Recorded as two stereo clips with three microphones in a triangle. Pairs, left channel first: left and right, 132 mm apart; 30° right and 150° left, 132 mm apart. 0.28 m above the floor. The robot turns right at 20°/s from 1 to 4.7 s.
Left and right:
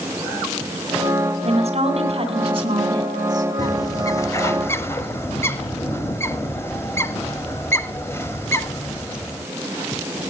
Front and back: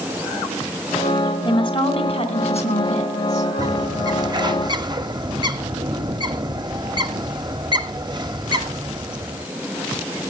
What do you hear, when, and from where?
1.4 s a woman speaking: 75° right, 2.5 m; by 3.5 s 35° right, 2.5 m
3.6 s a bird: 120° left, 0.9 m; by 9.5 s 145° left, 0.9 m